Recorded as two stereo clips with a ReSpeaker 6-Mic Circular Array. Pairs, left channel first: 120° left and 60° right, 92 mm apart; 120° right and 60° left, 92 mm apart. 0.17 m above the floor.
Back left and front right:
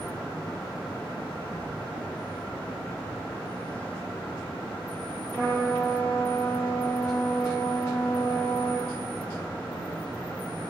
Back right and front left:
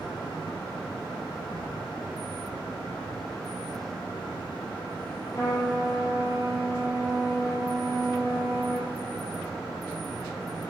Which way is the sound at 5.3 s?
175° right.